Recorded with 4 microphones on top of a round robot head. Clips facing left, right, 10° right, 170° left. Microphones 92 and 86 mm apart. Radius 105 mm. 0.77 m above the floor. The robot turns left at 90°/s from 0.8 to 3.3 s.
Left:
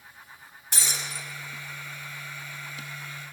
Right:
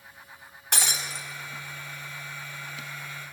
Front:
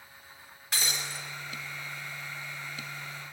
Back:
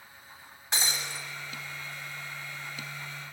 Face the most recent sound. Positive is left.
turn(degrees=15)